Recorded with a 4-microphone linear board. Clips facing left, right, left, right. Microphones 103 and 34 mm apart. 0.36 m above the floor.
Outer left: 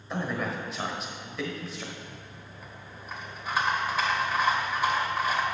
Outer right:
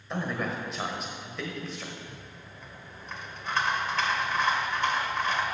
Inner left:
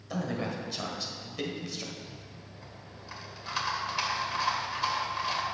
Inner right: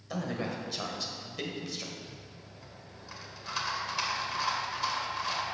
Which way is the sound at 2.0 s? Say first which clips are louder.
Even, inner left 1 dB; 10° left (ahead or behind).